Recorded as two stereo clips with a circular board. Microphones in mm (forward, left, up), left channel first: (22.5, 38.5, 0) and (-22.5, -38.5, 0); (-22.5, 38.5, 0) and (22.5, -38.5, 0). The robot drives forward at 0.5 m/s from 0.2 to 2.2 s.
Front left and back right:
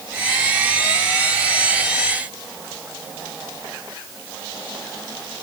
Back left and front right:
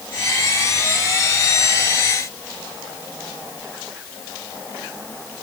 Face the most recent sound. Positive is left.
No sound to turn to.